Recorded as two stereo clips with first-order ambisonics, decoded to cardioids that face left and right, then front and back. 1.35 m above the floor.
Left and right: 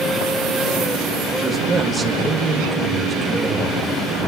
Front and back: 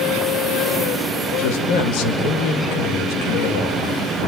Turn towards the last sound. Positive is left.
turn(degrees=-15)